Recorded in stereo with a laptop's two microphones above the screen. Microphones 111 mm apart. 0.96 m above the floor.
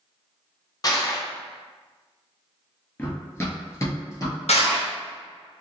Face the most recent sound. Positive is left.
turn(degrees=75)  # may be behind; listen again after turning